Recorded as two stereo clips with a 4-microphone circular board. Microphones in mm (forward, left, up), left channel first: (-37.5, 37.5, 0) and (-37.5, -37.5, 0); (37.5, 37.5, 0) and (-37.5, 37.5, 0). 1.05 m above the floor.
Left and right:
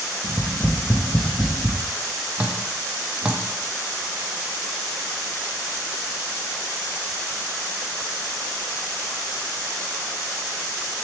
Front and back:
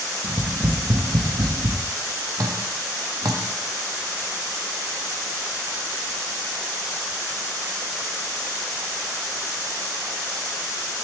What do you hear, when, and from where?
0.2 s tapping: 175° left, 0.6 m
2.4 s dripping: 160° right, 0.6 m